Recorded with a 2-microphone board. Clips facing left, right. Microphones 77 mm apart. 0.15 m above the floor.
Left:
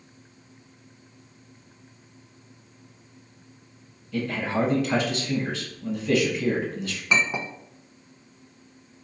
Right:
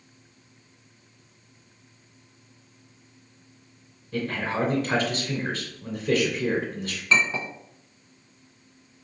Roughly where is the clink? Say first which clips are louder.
Right 1 dB; centre.